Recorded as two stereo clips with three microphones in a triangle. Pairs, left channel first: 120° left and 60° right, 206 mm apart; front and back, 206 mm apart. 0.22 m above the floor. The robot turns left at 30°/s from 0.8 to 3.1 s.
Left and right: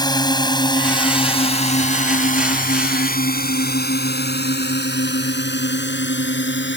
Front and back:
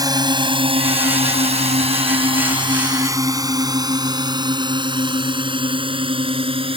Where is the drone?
145° left; by 6.8 s 120° left.